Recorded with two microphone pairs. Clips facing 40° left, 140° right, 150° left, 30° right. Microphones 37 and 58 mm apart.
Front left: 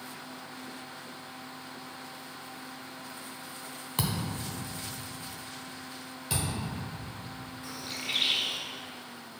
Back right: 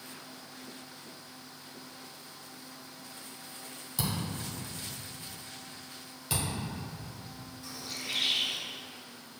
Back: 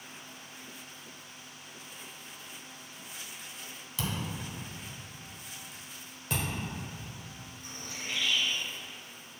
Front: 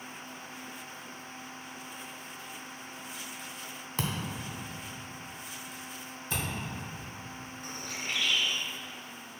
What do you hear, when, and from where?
4.0 s a thud: 15° left, 0.7 m
6.3 s a thud: 130° left, 1.8 m
7.6 s a bird: 5° right, 0.6 m